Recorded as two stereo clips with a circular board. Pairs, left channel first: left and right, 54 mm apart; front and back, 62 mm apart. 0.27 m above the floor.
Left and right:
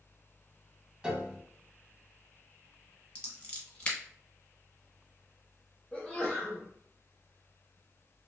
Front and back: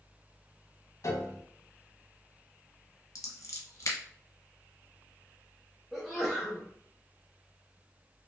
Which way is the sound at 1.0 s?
15° right.